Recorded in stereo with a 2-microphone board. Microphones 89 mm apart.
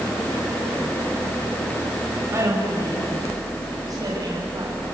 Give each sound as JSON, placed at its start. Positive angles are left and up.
{"t": 2.3, "sound": "a woman speaking", "side_deg": -35, "distance_m": 5.0}